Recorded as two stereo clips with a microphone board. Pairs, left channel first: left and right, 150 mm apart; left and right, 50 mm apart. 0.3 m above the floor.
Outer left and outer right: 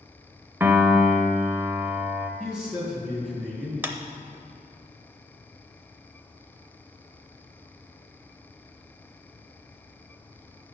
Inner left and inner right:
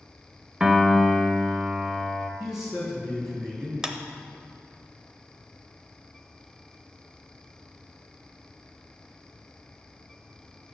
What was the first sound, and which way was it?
A piano, 15° right (ahead or behind).